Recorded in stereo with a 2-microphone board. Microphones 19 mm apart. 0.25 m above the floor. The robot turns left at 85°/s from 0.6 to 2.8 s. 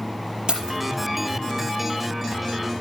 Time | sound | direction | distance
0.5 | keys jangling | 50° right (ahead or behind) | 4.5 m